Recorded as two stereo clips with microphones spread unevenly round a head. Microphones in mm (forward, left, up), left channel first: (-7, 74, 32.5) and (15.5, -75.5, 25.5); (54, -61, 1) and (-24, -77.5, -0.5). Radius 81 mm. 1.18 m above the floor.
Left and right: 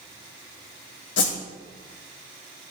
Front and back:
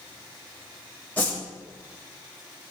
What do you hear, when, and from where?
1.2 s a whoosh: 95° left, 1.4 m